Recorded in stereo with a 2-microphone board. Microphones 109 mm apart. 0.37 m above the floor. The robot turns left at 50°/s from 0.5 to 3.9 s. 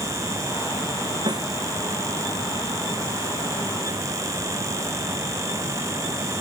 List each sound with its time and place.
1.3 s a snare drum: 40° right (ahead or behind); by 1.5 s 30° right (ahead or behind)